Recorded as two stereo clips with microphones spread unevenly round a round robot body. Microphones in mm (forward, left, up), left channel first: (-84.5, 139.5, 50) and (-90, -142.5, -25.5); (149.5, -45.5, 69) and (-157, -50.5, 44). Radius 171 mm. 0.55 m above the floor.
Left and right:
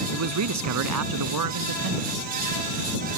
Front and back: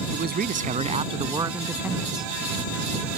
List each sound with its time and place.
0.1 s a man speaking: 120° right; by 2.2 s 90° right